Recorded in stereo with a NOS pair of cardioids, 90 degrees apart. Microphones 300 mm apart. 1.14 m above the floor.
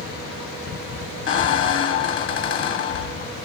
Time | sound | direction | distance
1.3 | a squeak | 40° left | 1.0 m